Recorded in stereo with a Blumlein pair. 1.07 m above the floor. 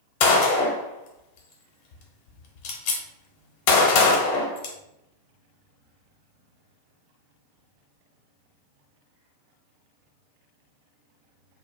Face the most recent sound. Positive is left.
turn(degrees=45)